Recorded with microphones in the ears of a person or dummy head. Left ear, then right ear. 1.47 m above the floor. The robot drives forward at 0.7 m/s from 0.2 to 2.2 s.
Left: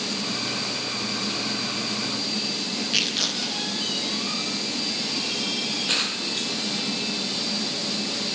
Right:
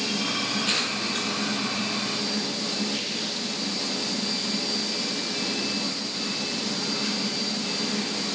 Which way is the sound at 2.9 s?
50° left (ahead or behind).